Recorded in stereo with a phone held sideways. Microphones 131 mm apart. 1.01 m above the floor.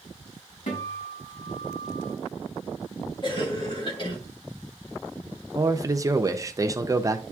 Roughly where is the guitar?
Left.